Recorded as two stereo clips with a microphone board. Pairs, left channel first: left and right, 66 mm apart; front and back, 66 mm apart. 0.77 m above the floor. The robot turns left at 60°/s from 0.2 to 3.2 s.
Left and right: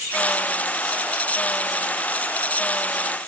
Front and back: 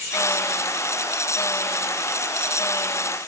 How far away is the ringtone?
No ringtone in this recording.